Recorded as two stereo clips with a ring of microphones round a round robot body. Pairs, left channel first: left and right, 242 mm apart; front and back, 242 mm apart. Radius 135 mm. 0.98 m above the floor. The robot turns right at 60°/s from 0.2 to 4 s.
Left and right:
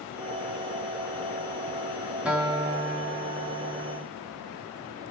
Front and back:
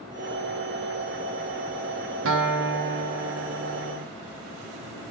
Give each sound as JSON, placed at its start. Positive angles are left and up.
{"t": 2.2, "sound": "a guitar", "azimuth_deg": -175, "distance_m": 0.6}